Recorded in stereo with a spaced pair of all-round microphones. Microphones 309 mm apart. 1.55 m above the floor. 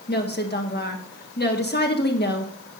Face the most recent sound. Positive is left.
turn(degrees=30)  # may be behind; listen again after turning